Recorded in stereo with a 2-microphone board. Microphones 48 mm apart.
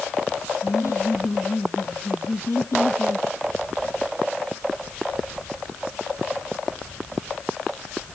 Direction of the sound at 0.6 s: 75° left (ahead or behind).